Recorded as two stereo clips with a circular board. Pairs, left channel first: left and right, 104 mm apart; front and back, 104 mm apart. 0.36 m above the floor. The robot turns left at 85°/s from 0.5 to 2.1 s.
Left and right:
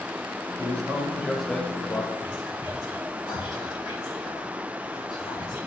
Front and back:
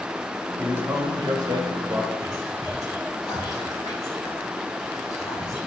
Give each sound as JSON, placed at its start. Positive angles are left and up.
{"t": 0.6, "sound": "a man speaking", "azimuth_deg": -110, "distance_m": 1.7}
{"t": 2.2, "sound": "whispering", "azimuth_deg": 50, "distance_m": 3.5}